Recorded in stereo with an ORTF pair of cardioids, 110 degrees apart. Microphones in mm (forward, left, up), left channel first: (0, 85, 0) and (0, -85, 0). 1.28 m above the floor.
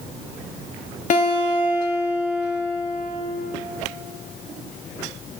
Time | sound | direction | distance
1.1 | a guitar | 50° left | 2.5 m